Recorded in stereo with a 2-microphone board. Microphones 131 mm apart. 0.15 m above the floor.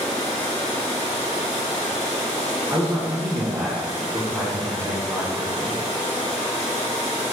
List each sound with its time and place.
2.7 s a man speaking: 10° right (ahead or behind), 1.4 m